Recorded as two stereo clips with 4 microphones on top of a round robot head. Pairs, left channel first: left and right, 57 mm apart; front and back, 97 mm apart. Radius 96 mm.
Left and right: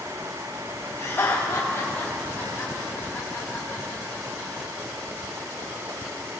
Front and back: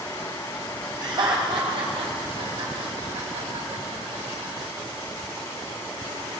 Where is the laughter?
135° left, 2.5 m; by 4.5 s 160° left, 4.5 m.